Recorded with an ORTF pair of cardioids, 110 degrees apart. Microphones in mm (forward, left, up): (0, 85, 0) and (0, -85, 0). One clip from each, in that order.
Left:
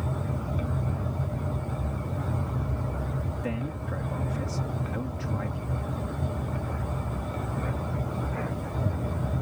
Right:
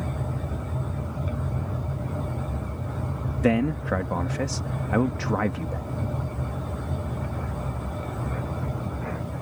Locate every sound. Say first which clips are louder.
3.4 s a man speaking: right 15 dB; 65° right